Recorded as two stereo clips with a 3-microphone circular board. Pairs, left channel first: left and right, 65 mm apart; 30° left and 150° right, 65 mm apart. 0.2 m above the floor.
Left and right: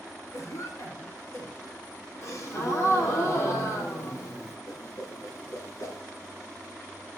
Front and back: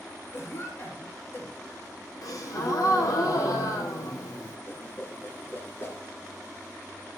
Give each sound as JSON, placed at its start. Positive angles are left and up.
{"t": 0.3, "sound": "a cough", "azimuth_deg": 70, "distance_m": 4.5}
{"t": 2.2, "sound": "a gasp", "azimuth_deg": 50, "distance_m": 2.5}
{"t": 4.7, "sound": "a whoosh", "azimuth_deg": 80, "distance_m": 1.6}